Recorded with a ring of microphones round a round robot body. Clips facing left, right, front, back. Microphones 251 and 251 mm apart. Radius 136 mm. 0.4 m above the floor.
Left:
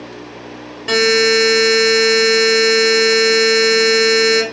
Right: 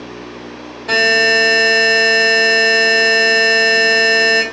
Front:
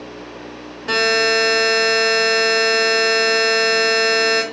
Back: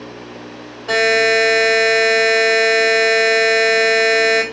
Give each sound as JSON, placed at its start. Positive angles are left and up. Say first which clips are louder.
{"t": 0.9, "sound": "a buzzer", "louder": "left 4 dB, back 3 dB", "azimuth_deg": 50, "distance_m": 1.9}